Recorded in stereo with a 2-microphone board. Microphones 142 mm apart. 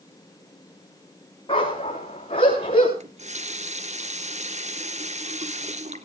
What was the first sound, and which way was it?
A dog barking, 35° left (ahead or behind).